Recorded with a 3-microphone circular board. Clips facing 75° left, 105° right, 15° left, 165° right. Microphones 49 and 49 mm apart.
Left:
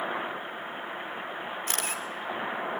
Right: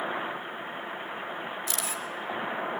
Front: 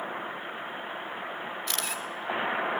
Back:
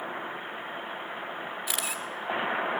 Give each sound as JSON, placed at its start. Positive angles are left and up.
{"t": 1.7, "sound": "a camera shutter", "azimuth_deg": 115, "distance_m": 3.0}